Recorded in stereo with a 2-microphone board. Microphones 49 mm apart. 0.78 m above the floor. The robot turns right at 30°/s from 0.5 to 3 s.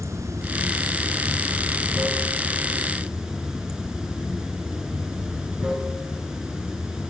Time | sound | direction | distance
0.0 | running water | 90° right | 2.5 m